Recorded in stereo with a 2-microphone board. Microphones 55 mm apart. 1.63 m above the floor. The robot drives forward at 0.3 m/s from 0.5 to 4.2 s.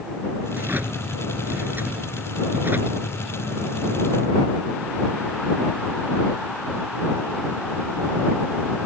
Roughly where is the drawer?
Right.